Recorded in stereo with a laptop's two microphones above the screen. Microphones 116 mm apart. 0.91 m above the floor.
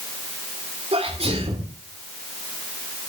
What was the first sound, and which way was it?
A sneeze, 60° right (ahead or behind).